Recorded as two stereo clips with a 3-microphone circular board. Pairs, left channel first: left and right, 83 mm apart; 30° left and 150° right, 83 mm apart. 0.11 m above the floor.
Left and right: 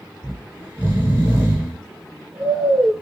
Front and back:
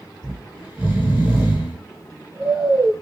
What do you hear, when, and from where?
0.2 s snoring: 120° right, 1.1 m